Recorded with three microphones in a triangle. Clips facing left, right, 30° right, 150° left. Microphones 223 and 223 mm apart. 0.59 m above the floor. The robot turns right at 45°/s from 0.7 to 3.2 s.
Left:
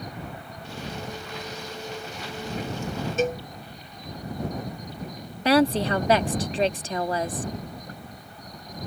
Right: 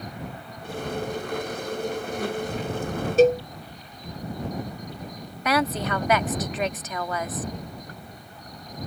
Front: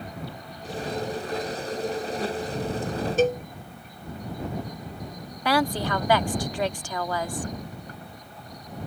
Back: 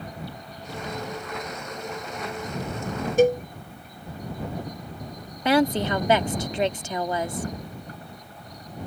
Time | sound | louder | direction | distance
3.2 | a cowbell | right 9 dB, back 4 dB | 135° right | ?
5.5 | a woman speaking | left 5 dB, back 4 dB | 105° left | ?